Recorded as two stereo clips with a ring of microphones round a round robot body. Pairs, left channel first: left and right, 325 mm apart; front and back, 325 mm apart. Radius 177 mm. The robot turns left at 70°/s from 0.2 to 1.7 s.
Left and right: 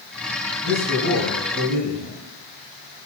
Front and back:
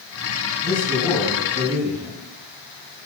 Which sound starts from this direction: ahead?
A man speaking, at 0.6 s.